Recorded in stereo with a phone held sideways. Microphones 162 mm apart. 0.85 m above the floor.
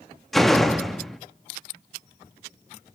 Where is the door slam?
Centre (ahead or behind), 1.1 m.